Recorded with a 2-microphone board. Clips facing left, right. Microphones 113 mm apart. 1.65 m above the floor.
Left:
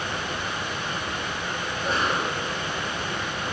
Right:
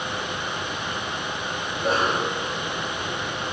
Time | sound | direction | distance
1.7 | a cough | 45° right (ahead or behind) | 4.5 m